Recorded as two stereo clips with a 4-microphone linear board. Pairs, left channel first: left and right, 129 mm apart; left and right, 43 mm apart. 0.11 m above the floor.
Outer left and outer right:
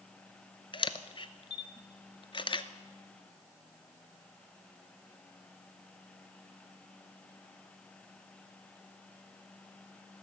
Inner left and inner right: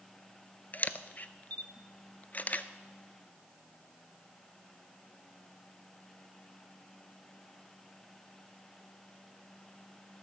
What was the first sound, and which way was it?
A camera shutter, 40° left (ahead or behind).